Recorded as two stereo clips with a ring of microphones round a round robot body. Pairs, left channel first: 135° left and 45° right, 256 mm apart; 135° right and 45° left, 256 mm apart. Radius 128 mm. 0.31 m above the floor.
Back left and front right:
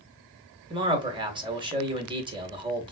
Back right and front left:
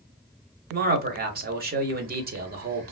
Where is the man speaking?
15° left, 1.1 m.